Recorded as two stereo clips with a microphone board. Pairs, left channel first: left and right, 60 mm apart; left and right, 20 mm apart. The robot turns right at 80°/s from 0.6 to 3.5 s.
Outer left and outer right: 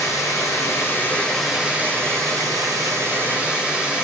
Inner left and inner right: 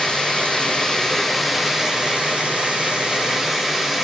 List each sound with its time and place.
0.0 s running water: 110° left, 2.0 m; by 4.0 s 15° right, 2.0 m